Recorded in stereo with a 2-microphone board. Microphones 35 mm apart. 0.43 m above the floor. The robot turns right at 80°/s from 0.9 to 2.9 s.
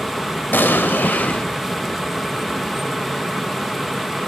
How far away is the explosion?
About 0.5 m.